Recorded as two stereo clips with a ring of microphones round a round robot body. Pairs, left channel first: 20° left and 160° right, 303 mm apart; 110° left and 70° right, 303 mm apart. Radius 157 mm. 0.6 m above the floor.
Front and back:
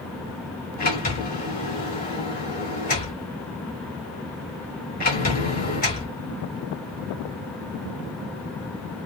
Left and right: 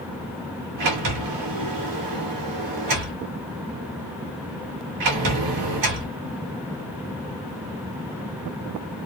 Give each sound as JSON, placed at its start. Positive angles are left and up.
{"t": 0.8, "sound": "a sliding door", "azimuth_deg": -40, "distance_m": 2.0}